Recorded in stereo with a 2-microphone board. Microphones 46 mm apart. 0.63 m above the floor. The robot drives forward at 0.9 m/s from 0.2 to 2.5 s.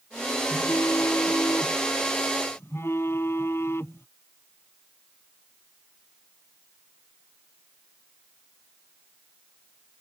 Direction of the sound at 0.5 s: 75° left (ahead or behind).